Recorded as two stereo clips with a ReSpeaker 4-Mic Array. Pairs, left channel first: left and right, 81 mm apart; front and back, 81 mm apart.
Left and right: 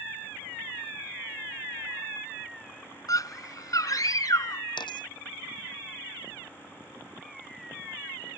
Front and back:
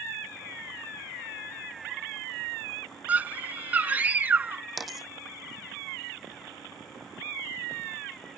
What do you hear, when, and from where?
3.1 s a scream: 115° left
4.8 s a dropped coin: 90° left